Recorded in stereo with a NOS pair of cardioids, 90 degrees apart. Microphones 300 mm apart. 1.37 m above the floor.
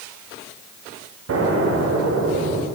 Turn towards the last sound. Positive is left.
turn(degrees=-50)